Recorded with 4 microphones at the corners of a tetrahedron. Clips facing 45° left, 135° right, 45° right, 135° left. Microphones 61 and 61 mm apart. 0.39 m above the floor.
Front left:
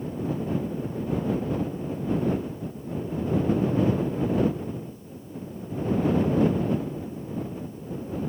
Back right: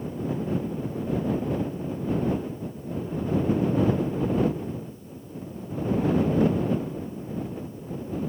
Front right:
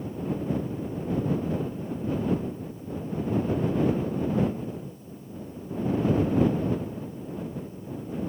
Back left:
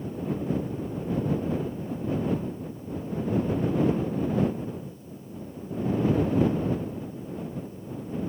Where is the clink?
I don't hear a clink.